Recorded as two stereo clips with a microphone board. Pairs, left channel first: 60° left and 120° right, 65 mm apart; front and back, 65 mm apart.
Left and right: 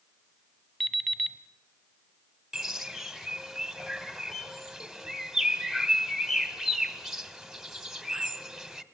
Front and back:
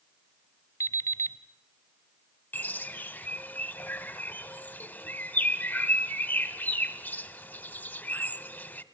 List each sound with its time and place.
0.8 s an alarm clock: 20° right, 1.1 m
2.5 s a bird: 40° right, 1.1 m